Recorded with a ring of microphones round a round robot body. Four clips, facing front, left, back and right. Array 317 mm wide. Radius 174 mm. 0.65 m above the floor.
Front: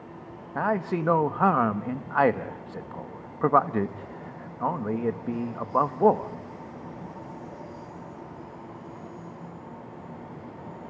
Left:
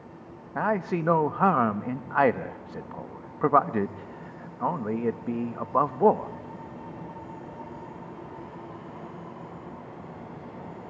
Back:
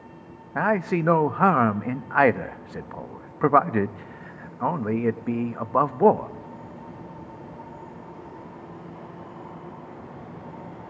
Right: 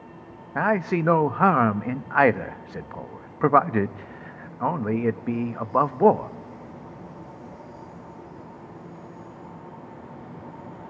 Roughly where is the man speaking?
Behind right.